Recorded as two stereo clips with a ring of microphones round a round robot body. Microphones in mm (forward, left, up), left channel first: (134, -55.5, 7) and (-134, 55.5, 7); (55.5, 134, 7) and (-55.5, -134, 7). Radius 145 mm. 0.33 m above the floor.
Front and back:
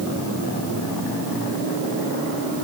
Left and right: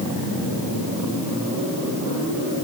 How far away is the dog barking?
I don't hear a dog barking.